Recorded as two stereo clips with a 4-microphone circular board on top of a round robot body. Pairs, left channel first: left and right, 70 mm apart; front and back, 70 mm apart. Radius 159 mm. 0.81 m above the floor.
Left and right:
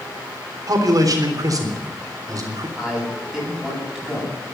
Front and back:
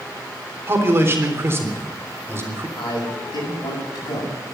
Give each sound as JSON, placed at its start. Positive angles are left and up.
{"t": 0.7, "sound": "a man speaking", "azimuth_deg": -125, "distance_m": 3.5}
{"t": 2.8, "sound": "a man speaking", "azimuth_deg": -5, "distance_m": 8.5}